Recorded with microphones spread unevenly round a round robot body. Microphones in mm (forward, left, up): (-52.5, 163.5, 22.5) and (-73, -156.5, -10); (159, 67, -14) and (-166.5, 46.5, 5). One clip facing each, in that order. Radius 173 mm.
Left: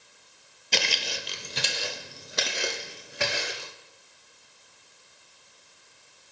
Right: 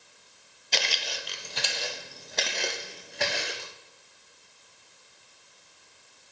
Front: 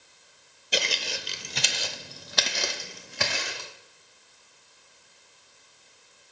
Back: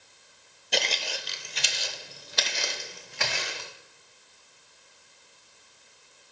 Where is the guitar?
I don't hear a guitar.